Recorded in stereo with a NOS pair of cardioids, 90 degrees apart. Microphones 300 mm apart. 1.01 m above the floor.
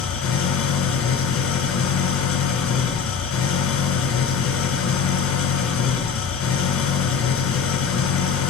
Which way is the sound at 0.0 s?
65° left.